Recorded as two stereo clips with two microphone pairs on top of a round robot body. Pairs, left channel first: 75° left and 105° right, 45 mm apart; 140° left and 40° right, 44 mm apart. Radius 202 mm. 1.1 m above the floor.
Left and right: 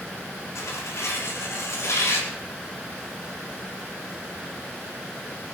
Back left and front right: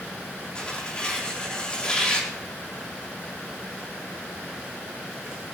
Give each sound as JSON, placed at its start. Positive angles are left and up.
{"t": 0.6, "sound": "tearing paper", "azimuth_deg": 70, "distance_m": 4.5}